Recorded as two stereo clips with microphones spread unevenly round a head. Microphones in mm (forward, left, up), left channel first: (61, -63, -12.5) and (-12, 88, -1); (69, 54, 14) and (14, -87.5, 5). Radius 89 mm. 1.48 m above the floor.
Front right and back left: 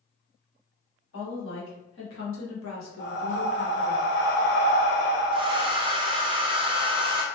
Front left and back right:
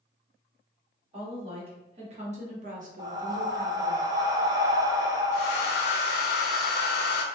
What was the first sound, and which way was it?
A woman speaking, 60° right.